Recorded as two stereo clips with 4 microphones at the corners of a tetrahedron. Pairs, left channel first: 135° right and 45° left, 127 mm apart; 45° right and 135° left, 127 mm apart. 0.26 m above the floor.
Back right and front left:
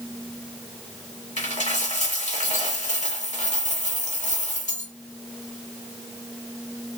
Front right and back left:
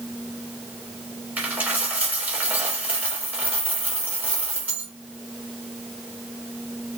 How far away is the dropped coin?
About 1.1 m.